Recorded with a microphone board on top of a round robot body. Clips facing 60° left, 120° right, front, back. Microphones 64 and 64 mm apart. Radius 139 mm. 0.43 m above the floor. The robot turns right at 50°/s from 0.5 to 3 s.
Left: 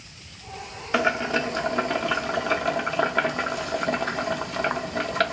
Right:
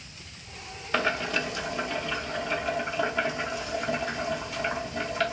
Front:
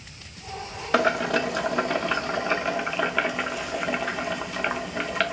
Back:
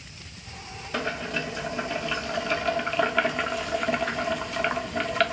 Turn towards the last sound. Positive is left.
turn(degrees=85)